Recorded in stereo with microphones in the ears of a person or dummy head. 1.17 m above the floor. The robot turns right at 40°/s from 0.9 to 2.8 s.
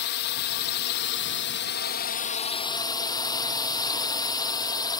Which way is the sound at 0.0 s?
75° left.